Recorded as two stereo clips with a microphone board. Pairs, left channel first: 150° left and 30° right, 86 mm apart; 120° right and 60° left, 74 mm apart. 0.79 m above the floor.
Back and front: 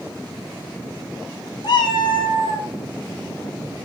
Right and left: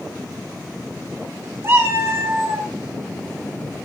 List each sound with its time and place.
1.6 s a cat meowing: 115° left, 0.8 m